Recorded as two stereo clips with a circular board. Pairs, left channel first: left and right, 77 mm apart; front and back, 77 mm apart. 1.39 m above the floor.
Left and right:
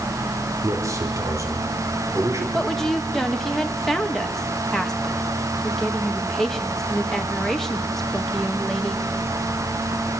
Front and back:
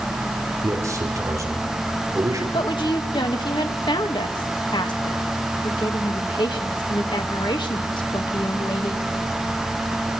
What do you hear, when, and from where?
0.6 s a man speaking: 135° right, 4 m
2.5 s a woman speaking: 5° left, 2.0 m